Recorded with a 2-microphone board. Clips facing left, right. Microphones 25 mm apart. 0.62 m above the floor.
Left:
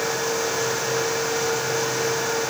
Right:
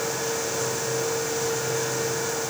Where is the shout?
No shout in this recording.